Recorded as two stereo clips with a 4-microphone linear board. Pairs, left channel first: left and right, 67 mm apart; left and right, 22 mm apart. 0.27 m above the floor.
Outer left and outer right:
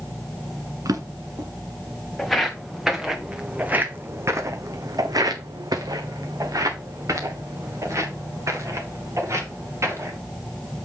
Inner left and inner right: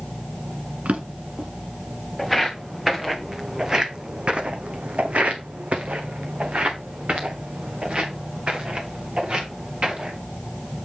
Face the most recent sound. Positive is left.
turn(degrees=-50)  # may be behind; listen again after turning